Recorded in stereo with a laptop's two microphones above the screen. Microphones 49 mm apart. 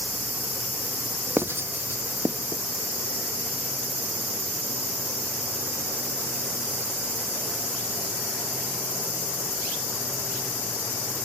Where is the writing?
50° right (ahead or behind), 0.5 m.